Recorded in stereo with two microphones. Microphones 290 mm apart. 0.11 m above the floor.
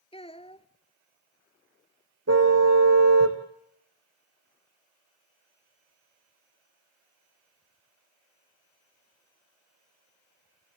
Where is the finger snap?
No finger snap in this recording.